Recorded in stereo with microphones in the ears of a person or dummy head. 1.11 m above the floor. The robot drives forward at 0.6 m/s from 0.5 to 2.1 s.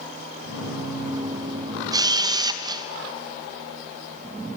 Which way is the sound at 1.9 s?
20° right (ahead or behind).